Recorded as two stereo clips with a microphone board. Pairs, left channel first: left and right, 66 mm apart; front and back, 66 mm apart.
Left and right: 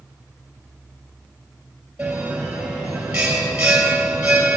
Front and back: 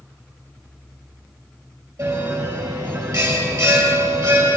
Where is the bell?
165° right, 4 m.